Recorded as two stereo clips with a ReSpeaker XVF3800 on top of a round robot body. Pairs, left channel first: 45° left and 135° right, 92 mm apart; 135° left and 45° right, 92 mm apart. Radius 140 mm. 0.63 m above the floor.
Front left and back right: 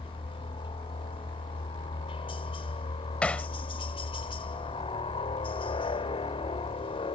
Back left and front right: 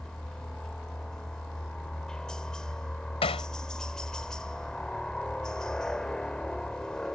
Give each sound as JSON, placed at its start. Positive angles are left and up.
{"t": 0.0, "sound": "a helicopter", "azimuth_deg": 55}
{"t": 3.2, "sound": "hammering", "azimuth_deg": 125}